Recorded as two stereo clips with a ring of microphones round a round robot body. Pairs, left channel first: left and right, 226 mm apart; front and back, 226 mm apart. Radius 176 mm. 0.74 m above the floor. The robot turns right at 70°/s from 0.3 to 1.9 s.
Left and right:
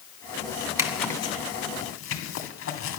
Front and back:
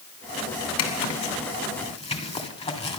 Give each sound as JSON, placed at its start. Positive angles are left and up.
{"t": 0.8, "sound": "a zipper", "azimuth_deg": -15, "distance_m": 2.5}